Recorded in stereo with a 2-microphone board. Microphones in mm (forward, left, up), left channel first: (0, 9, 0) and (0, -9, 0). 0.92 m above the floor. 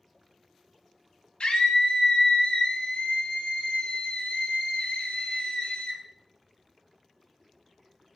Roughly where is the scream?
Left.